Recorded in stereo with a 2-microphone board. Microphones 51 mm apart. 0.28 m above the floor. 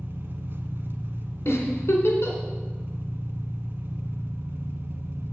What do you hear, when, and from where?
0.0 s an engine running: 55° right (ahead or behind), 1.0 m
1.4 s a giggle: 70° left (ahead or behind), 2.5 m